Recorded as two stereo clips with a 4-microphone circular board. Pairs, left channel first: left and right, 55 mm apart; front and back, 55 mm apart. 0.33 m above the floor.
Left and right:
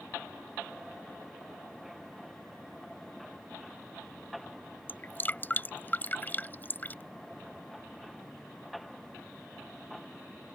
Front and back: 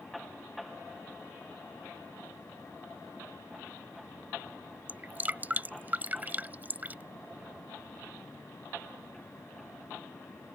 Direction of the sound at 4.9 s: 130° left.